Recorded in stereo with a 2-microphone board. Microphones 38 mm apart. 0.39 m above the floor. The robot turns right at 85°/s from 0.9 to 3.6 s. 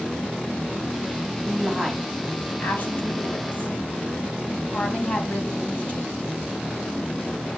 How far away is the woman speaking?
About 2 m.